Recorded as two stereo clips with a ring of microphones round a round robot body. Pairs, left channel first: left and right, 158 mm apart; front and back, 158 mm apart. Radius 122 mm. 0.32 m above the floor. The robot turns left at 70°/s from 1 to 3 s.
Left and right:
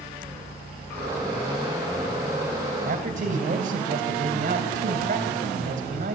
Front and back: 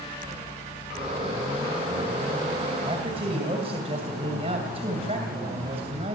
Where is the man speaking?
115° right, 2.5 m; by 6.2 s 125° right, 2.5 m.